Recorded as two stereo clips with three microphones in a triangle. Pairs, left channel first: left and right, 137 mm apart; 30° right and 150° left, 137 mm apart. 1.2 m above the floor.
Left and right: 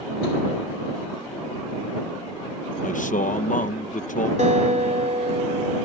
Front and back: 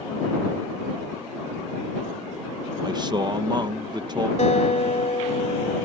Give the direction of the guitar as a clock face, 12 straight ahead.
2 o'clock.